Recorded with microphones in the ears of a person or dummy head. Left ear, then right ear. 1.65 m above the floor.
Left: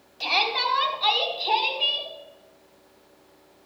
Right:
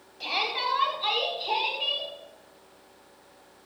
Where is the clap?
No clap in this recording.